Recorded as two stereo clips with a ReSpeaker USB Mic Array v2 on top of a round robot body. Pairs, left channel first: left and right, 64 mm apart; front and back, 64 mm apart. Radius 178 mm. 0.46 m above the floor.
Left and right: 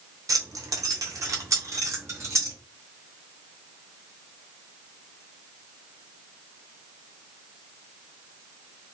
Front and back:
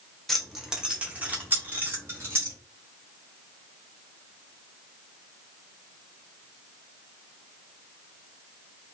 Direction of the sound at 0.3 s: 85° right.